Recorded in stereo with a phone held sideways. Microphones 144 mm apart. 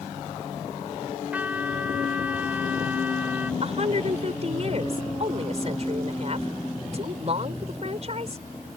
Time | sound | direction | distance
1.3 | a trumpet | 10° right (ahead or behind) | ?
3.6 | a woman speaking | 50° right (ahead or behind) | ?